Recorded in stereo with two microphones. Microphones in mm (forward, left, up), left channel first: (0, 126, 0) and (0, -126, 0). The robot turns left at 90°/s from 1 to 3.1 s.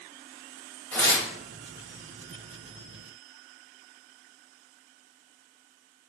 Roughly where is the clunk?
I don't hear a clunk.